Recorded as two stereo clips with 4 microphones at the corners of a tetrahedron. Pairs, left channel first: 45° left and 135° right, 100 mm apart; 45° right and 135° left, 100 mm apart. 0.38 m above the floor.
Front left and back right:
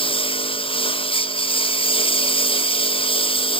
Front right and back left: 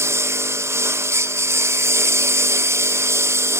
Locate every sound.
0.0 s a lawn mower: 70° left